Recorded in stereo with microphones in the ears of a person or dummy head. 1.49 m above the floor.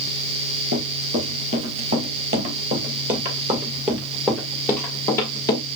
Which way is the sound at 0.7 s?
50° right (ahead or behind).